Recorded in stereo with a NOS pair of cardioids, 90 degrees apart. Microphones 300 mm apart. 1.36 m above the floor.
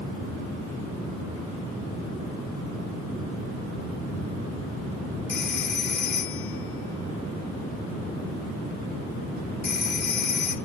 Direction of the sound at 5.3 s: 35° left.